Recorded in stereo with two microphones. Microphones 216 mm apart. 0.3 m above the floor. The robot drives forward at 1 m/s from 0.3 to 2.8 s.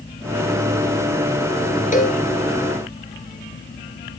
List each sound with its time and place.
1.9 s a cowbell: 35° left (ahead or behind), 1.8 m; by 2.2 s 30° left (ahead or behind), 2 m